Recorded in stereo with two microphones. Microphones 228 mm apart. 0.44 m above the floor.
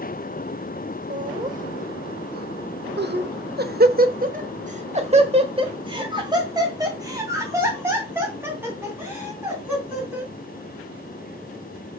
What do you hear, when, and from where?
1.1 s laughter: 30° right (ahead or behind), 1.7 m; by 10.3 s 5° right (ahead or behind), 4.5 m